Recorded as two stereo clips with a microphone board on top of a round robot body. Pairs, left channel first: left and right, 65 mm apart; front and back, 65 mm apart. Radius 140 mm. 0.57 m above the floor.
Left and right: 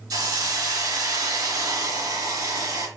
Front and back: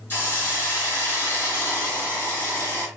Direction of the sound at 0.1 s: 60° right.